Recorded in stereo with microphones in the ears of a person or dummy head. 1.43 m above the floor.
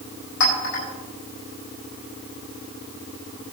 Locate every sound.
0.4 s a clink: 75° left (ahead or behind), 8 m